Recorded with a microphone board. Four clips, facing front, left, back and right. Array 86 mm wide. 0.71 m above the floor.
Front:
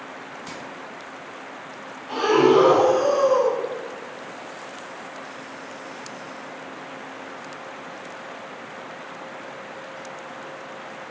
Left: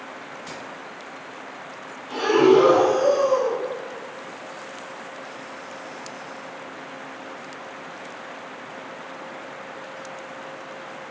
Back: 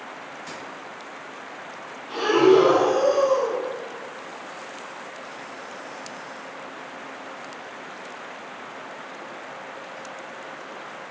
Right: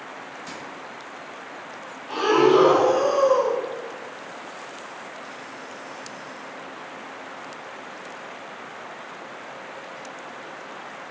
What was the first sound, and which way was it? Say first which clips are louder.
Keys jangling: left 1 dB, even; 25° left.